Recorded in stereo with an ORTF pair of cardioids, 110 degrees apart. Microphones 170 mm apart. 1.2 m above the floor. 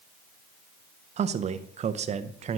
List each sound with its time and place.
1.2 s a man speaking: 40° right, 0.9 m